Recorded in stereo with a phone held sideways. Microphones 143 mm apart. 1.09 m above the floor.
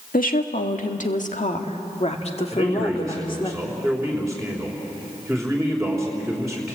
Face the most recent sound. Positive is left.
turn(degrees=0)  # may be behind; listen again after turning